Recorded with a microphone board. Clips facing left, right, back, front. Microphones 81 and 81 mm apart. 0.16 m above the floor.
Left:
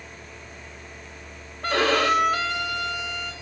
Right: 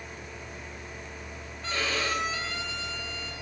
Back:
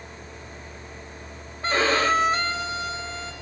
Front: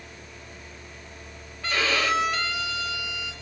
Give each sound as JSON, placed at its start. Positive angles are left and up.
{"t": 1.6, "sound": "a violin", "azimuth_deg": 125, "distance_m": 3.5}